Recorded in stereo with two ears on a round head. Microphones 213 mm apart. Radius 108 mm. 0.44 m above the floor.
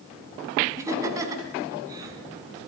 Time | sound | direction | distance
0.8 | laughter | 15° right (ahead or behind) | 3 m